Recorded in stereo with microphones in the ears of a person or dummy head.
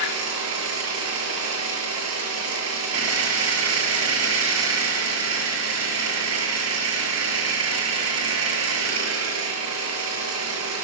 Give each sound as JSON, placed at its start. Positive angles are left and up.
{"t": 0.0, "sound": "an engine running", "side_deg": -75, "distance_m": 6.5}